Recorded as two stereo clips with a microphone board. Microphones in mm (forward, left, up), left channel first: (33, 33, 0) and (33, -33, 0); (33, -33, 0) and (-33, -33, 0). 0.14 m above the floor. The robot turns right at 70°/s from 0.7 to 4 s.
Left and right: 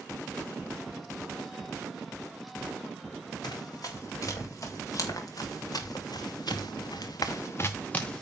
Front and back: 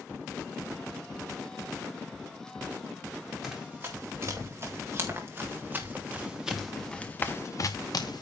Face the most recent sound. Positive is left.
turn(degrees=10)